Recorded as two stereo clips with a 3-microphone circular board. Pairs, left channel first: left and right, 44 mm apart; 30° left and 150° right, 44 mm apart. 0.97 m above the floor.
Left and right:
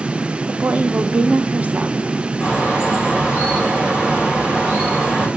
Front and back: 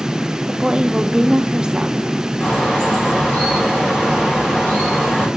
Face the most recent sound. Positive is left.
turn(degrees=-30)